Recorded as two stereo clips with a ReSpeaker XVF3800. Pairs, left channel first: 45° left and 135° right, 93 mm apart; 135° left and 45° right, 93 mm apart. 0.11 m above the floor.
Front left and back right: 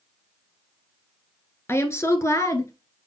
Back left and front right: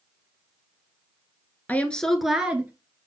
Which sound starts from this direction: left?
A woman speaking, at 1.7 s.